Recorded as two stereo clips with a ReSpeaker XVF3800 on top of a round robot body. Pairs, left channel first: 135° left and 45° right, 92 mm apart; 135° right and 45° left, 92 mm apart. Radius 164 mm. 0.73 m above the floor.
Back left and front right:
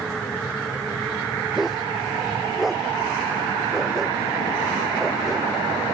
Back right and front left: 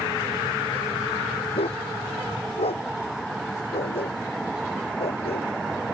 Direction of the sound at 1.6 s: 135° right.